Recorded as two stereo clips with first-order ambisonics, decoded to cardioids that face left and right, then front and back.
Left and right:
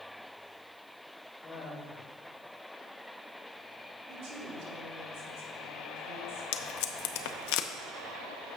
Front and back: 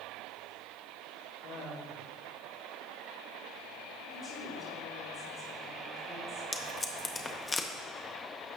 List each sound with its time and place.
1.4 s laughter: 25° left, 1.4 m
4.1 s a woman speaking: 75° right, 3.5 m
6.5 s tape being pulled: 75° left, 0.6 m